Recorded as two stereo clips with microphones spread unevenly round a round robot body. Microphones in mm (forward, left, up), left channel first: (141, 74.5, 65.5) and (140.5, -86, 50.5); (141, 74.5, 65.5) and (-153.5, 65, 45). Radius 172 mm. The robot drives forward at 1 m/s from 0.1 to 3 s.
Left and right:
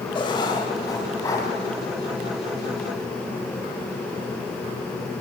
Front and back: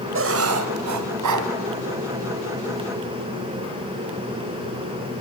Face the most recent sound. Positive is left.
turn(degrees=175)